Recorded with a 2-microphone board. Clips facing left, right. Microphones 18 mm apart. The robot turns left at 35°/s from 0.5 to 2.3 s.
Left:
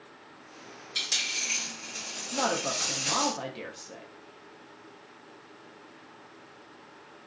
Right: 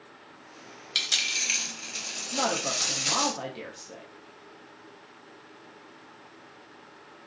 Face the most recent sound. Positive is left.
turn(degrees=5)  # may be behind; listen again after turning